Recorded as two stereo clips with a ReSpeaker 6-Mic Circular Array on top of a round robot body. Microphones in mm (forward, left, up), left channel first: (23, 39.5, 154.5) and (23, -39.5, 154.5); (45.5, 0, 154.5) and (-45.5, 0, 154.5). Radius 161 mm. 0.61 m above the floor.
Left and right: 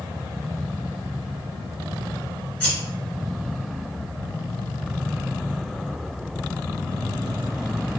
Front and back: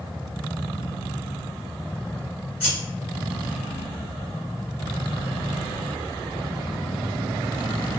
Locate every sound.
2.6 s scissors: 15° left, 1.1 m